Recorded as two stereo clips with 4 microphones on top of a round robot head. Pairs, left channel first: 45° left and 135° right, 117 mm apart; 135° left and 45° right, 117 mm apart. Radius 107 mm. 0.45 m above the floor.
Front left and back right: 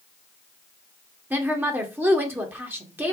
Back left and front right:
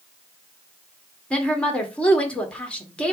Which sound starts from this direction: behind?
A woman speaking, at 1.3 s.